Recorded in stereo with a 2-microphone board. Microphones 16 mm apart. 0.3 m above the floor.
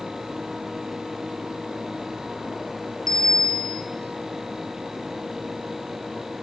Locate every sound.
3.1 s a bicycle bell: 40° left (ahead or behind), 5 m